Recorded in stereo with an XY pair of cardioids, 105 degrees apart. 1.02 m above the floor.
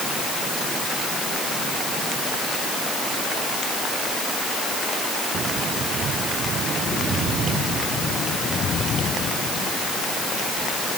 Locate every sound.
Only background noise.